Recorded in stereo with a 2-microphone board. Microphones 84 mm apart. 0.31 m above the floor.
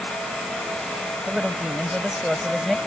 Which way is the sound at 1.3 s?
5° right (ahead or behind).